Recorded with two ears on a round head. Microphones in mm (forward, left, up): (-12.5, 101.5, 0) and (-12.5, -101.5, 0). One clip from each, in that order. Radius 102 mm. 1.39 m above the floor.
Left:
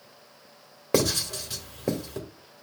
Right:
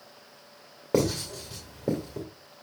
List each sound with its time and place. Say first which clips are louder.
0.9 s writing: left 2 dB; 50° left (ahead or behind), 1.8 m